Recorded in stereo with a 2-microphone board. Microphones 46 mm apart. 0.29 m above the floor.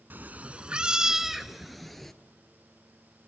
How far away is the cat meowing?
About 0.7 m.